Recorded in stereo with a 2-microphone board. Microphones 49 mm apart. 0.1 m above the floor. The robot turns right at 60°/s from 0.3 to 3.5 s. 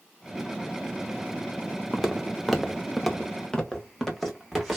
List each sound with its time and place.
1.9 s footsteps: centre (ahead or behind), 0.6 m